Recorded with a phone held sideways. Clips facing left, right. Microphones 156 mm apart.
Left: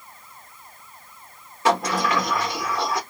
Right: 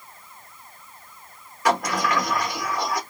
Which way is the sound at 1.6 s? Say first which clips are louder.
Left 1 dB; 25° left (ahead or behind).